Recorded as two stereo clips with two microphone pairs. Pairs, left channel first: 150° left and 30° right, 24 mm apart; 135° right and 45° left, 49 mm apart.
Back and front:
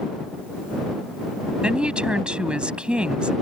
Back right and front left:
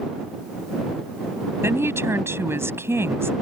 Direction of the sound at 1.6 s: 15° left.